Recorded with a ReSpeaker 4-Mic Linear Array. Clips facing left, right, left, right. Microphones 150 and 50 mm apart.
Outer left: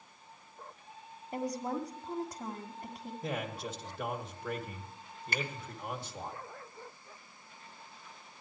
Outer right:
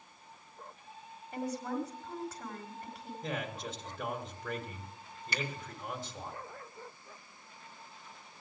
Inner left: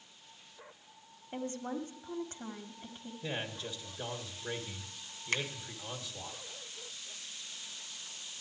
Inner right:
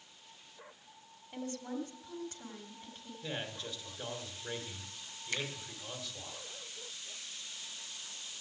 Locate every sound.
1.3 s a woman speaking: 40° left (ahead or behind), 1.7 m
3.2 s a man speaking: 15° left (ahead or behind), 1.7 m
5.3 s a finger snap: 50° left (ahead or behind), 2.5 m